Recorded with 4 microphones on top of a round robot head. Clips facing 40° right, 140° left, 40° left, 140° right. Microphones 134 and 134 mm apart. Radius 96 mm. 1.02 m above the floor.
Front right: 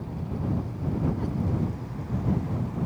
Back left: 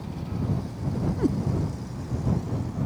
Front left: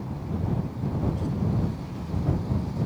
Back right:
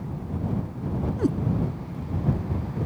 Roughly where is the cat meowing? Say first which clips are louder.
Back left 7 dB, back right 7 dB; behind.